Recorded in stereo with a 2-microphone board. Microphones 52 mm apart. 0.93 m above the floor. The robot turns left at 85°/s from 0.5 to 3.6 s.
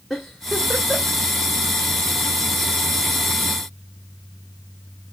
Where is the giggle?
5° right (ahead or behind), 2 m; by 1.2 s 65° right (ahead or behind), 2 m.